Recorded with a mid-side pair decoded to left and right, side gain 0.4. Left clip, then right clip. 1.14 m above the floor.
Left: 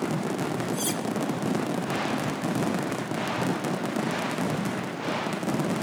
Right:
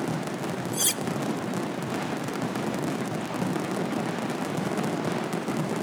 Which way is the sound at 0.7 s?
50° right.